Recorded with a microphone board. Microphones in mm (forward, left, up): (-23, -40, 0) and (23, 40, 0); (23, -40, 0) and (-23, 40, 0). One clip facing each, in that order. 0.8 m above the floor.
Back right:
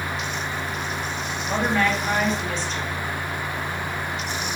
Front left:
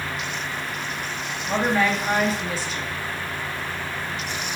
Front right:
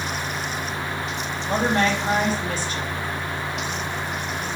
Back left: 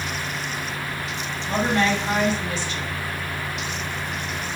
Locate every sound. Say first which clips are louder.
1.4 s a woman speaking: front left 1 dB, even; 25° right, 1.5 m